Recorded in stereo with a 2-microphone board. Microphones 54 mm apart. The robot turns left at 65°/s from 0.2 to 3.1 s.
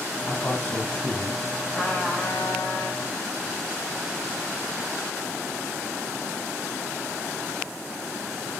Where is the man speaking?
65° left, 1.9 m; by 1.4 s 10° right, 1.9 m.